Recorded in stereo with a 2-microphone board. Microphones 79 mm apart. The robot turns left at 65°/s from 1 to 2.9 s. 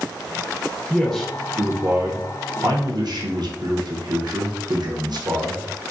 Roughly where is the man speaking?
Ahead.